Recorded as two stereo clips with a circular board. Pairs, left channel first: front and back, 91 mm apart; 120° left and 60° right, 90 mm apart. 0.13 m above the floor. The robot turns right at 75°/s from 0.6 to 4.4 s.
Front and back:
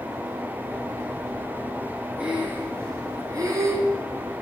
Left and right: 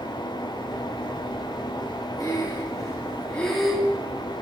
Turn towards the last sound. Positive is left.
turn(degrees=-90)